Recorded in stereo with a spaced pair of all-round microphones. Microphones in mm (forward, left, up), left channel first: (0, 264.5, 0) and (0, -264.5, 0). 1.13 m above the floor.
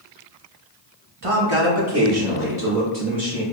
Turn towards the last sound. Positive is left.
turn(degrees=-25)  # may be behind; listen again after turning